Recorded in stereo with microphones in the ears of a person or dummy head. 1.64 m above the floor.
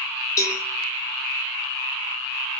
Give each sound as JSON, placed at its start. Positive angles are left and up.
{"t": 0.4, "sound": "a cowbell", "side_deg": 20, "distance_m": 2.5}